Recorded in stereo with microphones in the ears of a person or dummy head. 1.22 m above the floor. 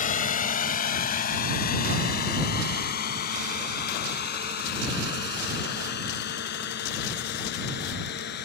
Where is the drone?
40° left (ahead or behind); by 8.5 s 60° left (ahead or behind).